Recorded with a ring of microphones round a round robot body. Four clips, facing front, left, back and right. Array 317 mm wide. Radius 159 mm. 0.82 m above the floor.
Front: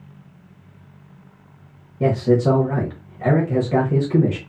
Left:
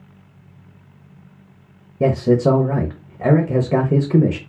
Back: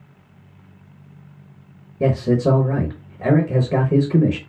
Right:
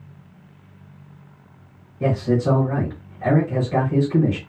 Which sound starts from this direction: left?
A man speaking, at 2.0 s.